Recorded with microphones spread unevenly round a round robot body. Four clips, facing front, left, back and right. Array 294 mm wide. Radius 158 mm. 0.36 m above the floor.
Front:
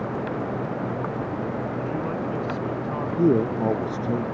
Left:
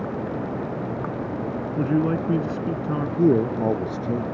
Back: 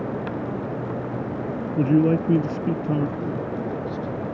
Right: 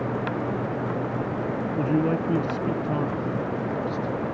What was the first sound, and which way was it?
A man speaking, 165° left.